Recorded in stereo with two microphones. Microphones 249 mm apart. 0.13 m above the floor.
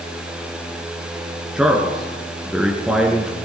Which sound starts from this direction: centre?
A man speaking, at 1.6 s.